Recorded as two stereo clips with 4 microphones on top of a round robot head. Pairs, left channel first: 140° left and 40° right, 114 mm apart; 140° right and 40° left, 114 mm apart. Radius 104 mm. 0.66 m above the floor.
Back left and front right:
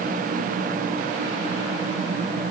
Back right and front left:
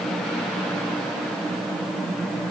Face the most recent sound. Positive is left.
No sound to turn to.